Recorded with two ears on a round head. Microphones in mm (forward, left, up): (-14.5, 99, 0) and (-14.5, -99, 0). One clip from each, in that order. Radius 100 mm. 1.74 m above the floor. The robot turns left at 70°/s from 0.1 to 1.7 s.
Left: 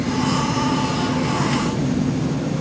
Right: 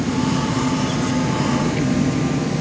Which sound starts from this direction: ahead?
An engine running, at 0.0 s.